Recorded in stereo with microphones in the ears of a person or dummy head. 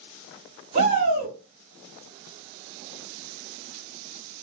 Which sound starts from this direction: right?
A shout, at 0.7 s.